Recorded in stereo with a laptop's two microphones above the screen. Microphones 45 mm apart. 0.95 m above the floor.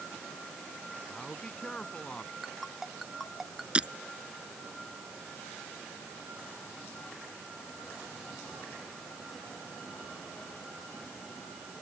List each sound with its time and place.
1.1 s a man speaking: 15° left (ahead or behind)
2.4 s a ringtone: centre (ahead or behind)
3.8 s breaking glass: 20° right (ahead or behind)